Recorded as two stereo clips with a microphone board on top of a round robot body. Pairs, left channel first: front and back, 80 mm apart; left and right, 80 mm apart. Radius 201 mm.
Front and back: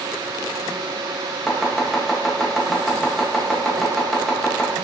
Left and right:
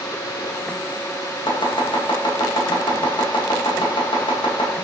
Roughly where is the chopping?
Left.